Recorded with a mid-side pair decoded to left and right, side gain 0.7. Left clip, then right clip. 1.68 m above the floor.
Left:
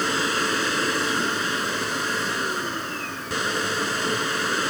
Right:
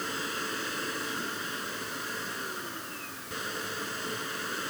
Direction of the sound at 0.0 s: 45° left.